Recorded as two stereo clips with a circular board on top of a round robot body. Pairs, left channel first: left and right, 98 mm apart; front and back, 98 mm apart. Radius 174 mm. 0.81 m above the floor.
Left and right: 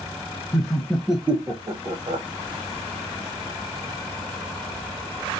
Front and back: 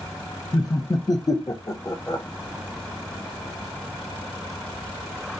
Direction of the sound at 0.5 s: 40° left.